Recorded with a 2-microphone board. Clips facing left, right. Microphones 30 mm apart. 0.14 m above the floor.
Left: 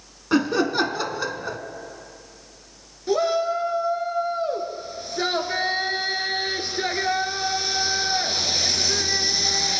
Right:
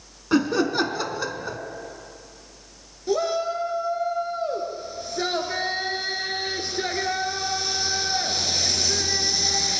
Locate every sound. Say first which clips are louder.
0.3 s laughter: even; 10° left (ahead or behind), 1.1 m
3.1 s a shout: left 2 dB; 15° left (ahead or behind), 2 m